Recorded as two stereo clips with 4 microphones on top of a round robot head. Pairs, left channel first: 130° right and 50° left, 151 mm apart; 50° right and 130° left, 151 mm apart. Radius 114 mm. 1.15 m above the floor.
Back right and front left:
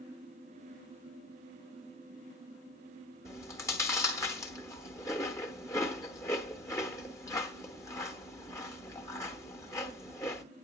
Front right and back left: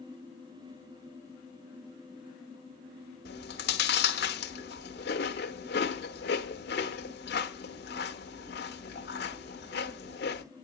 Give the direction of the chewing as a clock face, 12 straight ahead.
2 o'clock.